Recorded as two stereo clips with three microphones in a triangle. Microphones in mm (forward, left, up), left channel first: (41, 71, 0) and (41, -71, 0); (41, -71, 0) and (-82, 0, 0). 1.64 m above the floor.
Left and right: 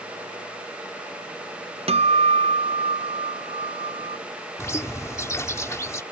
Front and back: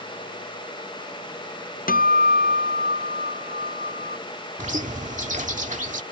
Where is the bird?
155° left.